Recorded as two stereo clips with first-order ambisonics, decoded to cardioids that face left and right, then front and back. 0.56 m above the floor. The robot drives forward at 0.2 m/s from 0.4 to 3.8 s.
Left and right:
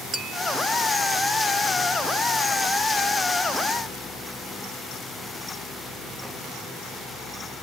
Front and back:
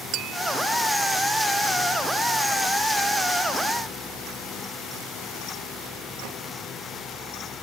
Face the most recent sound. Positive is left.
turn(degrees=-165)